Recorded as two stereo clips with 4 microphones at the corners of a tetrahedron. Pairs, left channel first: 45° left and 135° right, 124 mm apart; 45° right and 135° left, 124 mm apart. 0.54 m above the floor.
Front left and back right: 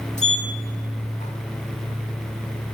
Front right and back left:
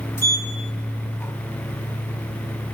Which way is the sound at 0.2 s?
25° left.